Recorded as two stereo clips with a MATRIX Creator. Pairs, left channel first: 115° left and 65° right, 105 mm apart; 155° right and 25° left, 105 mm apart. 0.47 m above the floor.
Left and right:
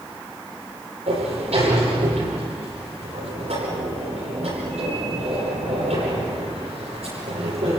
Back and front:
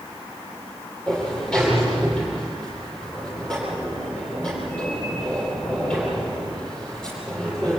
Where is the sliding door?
75° right, 10 m.